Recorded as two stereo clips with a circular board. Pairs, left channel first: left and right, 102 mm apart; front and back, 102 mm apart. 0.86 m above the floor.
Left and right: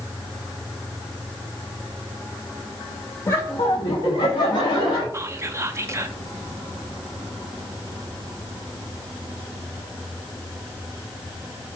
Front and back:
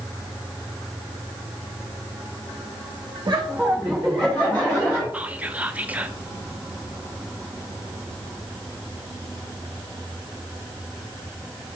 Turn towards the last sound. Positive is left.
turn(degrees=-120)